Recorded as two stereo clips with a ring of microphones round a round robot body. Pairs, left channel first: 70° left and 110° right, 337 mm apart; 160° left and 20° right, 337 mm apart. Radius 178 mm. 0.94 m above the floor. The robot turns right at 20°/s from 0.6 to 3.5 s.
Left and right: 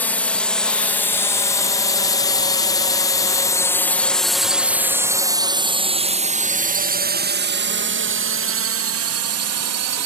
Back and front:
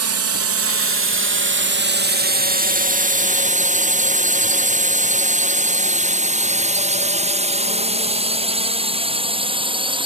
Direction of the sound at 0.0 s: 15° right.